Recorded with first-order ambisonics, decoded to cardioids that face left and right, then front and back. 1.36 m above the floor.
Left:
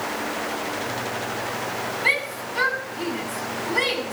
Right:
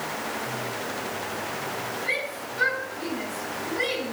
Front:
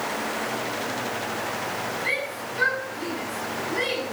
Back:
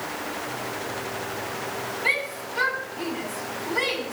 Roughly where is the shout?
Left.